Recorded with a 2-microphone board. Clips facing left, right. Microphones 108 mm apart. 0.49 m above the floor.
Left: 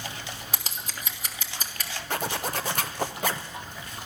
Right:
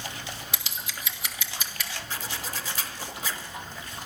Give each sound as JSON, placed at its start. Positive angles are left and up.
{"t": 0.5, "sound": "scissors", "side_deg": 40, "distance_m": 1.1}
{"t": 2.1, "sound": "a zipper", "side_deg": 60, "distance_m": 0.7}